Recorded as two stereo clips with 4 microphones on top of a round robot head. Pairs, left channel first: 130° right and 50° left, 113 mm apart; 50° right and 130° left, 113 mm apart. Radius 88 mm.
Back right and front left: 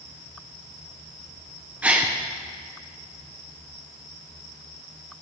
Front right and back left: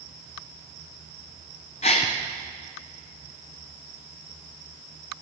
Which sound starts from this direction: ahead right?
A gasp, at 1.8 s.